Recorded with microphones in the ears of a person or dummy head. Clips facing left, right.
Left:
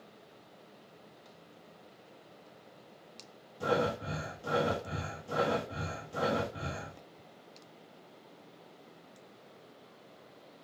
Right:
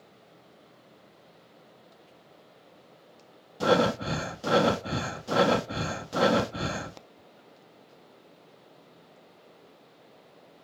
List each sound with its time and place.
3.6 s breathing: 80° right, 0.7 m